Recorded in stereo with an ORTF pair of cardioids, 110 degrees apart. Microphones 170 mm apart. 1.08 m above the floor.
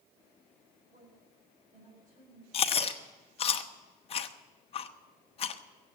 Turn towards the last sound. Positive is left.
turn(degrees=35)